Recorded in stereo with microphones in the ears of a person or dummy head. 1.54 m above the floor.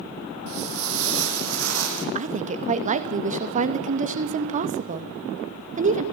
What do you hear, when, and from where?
0.5 s footsteps: 65° right (ahead or behind), 4.5 m; by 2.0 s 75° right (ahead or behind), 6 m
2.1 s a woman speaking: 40° right (ahead or behind), 2 m